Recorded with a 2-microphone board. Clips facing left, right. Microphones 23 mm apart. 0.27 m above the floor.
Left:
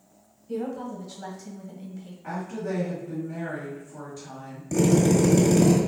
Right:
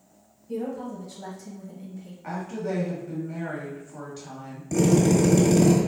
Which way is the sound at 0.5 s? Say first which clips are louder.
Even; 20° left (ahead or behind).